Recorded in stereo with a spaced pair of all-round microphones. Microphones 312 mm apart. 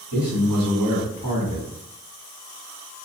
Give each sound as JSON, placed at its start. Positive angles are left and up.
{"t": 0.1, "sound": "a man speaking", "side_deg": -85, "distance_m": 1.5}